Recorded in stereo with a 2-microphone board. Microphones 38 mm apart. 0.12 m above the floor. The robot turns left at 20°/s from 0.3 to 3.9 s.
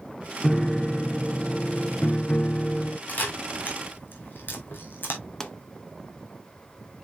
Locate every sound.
0.4 s a piano: 175° left, 0.7 m; by 3.0 s 125° left, 0.7 m
3.1 s a camera shutter: 45° left (ahead or behind), 2.5 m; by 5.2 s 60° left (ahead or behind), 2.5 m
5.4 s a pop: 15° left (ahead or behind), 1.1 m